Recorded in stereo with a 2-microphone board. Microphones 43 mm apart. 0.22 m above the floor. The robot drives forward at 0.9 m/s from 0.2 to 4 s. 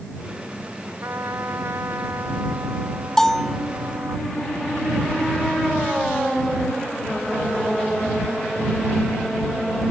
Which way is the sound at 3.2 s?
10° left (ahead or behind).